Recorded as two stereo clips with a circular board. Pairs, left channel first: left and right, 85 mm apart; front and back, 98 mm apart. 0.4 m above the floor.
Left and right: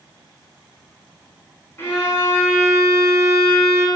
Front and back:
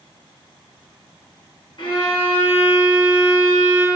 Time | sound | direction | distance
1.8 | a violin | 30° left | 2.5 m